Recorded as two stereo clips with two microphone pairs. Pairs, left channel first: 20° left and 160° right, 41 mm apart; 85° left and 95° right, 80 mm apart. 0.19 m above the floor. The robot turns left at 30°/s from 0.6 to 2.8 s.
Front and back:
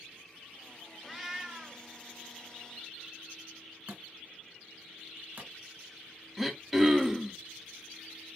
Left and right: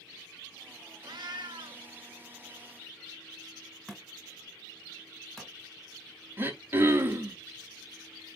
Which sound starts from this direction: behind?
A thud, at 3.9 s.